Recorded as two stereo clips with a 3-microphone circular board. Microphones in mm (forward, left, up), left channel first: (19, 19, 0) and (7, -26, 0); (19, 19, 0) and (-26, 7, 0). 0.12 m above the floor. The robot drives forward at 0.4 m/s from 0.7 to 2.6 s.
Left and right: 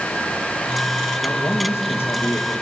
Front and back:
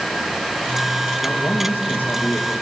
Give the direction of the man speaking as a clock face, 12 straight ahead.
11 o'clock.